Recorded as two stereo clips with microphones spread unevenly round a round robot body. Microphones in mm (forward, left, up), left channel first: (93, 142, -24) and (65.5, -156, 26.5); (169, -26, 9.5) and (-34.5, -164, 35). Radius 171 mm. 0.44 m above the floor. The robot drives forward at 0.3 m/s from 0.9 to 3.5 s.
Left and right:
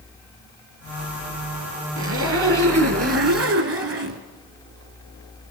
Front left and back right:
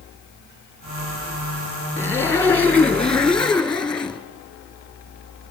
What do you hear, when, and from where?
2.0 s a zipper: 45° right, 3 m; by 4.2 s 55° right, 2.5 m